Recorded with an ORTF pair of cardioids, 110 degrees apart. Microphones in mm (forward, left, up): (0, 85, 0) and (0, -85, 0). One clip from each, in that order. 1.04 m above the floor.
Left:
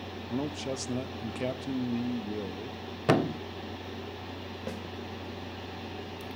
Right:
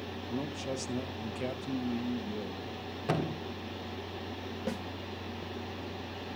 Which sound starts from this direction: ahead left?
A thud, at 3.1 s.